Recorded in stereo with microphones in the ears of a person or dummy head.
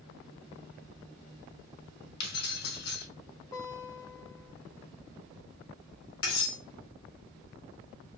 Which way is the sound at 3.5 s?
10° left (ahead or behind).